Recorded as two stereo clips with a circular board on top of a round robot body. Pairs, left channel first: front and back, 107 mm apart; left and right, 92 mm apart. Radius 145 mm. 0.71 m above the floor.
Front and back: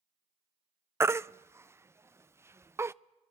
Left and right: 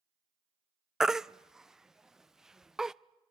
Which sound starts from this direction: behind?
A baby crying, at 1.0 s.